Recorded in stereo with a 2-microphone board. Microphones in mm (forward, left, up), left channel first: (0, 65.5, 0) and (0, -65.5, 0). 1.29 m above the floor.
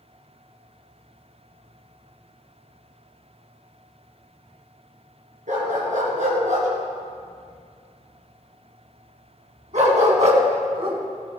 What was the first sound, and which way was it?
A dog barking, 65° right (ahead or behind).